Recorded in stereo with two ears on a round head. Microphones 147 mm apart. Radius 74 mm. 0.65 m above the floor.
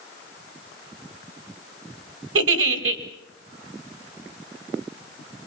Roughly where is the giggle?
Right.